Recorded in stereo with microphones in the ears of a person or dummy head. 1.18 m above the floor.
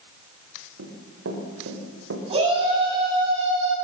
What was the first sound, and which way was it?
Running footsteps, 70° right (ahead or behind).